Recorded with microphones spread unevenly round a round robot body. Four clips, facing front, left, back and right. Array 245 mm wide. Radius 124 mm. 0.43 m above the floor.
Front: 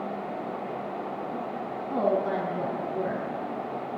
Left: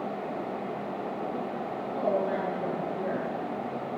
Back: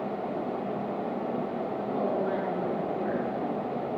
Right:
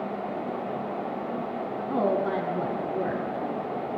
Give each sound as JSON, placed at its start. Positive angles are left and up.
{"t": 1.9, "sound": "a woman speaking", "azimuth_deg": -50, "distance_m": 4.0}